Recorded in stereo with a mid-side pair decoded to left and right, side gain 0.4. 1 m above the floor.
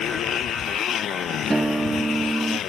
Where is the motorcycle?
65° left.